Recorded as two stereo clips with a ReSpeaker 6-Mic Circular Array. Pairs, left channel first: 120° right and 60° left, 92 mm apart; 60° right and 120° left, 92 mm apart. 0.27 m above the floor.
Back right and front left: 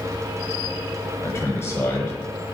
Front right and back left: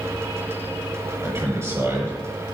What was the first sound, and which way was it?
A man speaking, straight behind.